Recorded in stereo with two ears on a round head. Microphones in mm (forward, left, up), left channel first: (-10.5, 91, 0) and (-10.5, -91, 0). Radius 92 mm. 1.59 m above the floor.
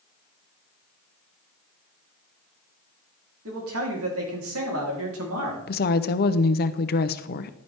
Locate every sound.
3.5 s a man speaking: 75° right (ahead or behind), 3.5 m
5.7 s a woman speaking: 50° left (ahead or behind), 0.7 m